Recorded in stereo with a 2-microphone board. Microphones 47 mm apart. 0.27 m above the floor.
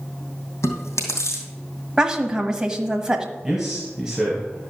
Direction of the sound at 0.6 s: 80° left.